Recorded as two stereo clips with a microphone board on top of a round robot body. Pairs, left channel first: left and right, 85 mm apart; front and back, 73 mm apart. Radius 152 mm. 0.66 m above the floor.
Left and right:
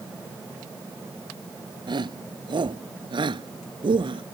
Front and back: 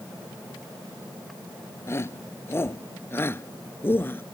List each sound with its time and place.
1.9 s a shout: 55° right; by 4.2 s 65° right